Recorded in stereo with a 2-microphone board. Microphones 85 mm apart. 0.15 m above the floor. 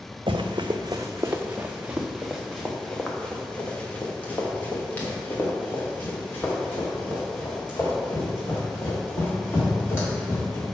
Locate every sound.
0.3 s running footsteps: 75° right (ahead or behind), 0.8 m; by 10.7 s 30° left (ahead or behind), 5.5 m